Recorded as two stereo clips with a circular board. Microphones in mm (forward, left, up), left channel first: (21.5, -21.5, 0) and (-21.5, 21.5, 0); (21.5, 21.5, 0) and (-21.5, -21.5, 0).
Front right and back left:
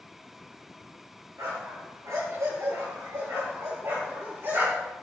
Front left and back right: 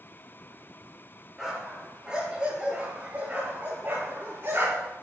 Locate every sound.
1.4 s a dog barking: 140° left, 4.5 m; by 4.9 s 175° right, 5.5 m